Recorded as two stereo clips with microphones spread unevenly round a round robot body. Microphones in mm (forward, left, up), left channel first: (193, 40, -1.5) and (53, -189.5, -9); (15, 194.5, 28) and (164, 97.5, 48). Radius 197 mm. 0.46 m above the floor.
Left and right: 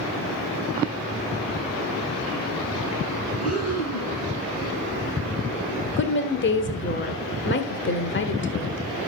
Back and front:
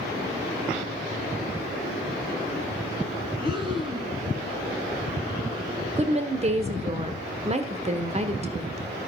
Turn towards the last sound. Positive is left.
turn(degrees=20)